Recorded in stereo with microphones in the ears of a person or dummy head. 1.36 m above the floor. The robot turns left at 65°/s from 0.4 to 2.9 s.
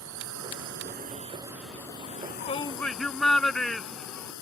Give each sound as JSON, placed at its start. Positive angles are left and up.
{"t": 0.0, "sound": "a drone", "azimuth_deg": -95}
{"t": 2.0, "sound": "a shout", "azimuth_deg": 60}